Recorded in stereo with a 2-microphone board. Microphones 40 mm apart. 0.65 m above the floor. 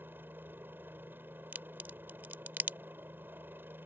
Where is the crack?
50° right (ahead or behind).